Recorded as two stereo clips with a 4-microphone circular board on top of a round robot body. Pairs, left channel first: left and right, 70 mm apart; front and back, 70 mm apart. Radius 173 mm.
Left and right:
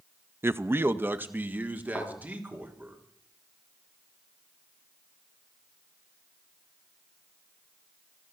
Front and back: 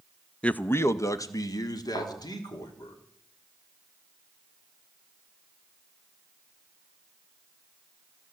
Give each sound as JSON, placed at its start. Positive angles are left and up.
{"t": 0.4, "sound": "a man speaking", "azimuth_deg": -70, "distance_m": 0.7}
{"t": 1.9, "sound": "a thud", "azimuth_deg": 25, "distance_m": 4.5}